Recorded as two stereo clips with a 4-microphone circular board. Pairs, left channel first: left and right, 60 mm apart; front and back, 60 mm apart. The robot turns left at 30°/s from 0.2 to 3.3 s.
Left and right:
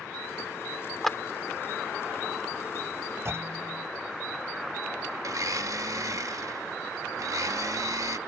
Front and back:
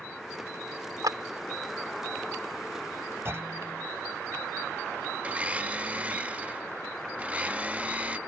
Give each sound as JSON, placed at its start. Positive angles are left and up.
{"t": 1.0, "sound": "a clap", "azimuth_deg": 175}
{"t": 3.2, "sound": "a clunk", "azimuth_deg": -130}
{"t": 5.2, "sound": "a blender", "azimuth_deg": -115}